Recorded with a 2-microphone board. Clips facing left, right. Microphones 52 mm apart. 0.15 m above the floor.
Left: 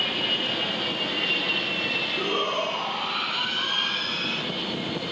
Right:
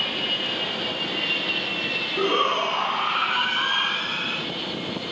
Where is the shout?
45° right (ahead or behind), 1.8 m; by 4.4 s 15° right (ahead or behind), 1.5 m.